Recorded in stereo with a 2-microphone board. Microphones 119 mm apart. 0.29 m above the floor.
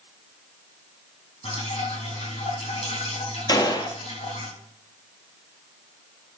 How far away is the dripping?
About 5.5 m.